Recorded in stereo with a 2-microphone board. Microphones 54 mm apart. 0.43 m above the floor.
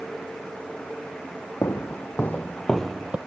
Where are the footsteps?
60° left (ahead or behind), 1.3 m; by 3.2 s 20° right (ahead or behind), 0.7 m.